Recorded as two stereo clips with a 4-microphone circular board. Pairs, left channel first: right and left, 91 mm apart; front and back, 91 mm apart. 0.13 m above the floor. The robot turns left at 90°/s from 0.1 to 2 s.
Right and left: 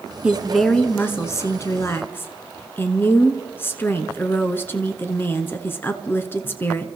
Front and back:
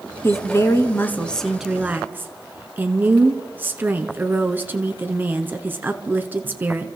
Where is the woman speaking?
25° left, 1.2 m; by 6.9 s 130° right, 1.2 m.